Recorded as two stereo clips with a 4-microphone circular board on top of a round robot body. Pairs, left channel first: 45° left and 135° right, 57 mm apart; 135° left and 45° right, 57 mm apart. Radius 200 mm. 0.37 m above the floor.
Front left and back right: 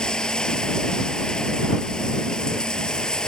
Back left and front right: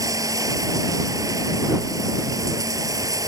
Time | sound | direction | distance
0.0 | running water | 35° right | ?